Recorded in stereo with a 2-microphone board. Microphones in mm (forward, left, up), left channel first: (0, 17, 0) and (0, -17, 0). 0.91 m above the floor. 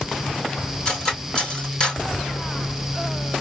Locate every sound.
0.8 s cutlery clinking: 20° left (ahead or behind), 1.6 m